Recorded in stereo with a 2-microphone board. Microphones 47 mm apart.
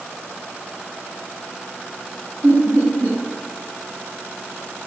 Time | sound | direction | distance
2.4 | laughter | 80° right | 1.7 m